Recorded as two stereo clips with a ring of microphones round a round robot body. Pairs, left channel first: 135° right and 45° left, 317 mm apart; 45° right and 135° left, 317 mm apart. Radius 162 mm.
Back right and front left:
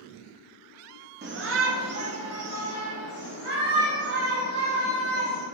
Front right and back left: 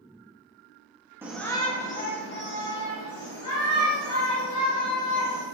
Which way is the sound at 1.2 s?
60° left.